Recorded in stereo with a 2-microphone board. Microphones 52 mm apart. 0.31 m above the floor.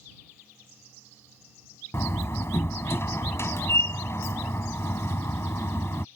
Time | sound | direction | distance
1.9 | a door slam | 55° left (ahead or behind) | ?